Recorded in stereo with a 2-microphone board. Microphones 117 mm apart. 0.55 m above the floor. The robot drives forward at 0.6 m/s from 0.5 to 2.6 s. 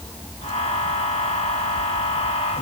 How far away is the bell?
I don't hear a bell.